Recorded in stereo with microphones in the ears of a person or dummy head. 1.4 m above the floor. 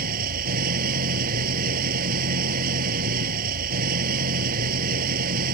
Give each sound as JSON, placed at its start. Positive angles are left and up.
{"t": 0.0, "sound": "an engine running", "side_deg": -55}